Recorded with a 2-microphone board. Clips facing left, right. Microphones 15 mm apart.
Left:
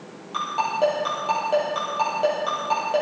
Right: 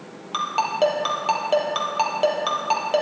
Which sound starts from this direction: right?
A ringtone, at 0.3 s.